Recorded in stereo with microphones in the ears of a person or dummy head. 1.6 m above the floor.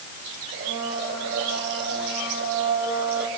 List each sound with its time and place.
0.5 s a blender: 60° right (ahead or behind), 6 m